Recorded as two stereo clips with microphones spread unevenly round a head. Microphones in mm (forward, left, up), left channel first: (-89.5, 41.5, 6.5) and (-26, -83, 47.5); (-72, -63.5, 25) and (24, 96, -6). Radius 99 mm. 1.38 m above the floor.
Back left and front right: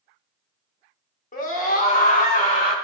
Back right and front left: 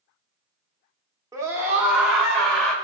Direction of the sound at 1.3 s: 135° left.